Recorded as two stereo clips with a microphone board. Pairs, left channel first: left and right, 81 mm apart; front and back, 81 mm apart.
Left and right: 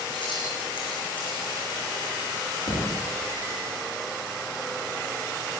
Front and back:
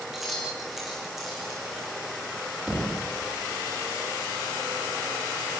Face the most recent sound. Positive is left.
turn(degrees=100)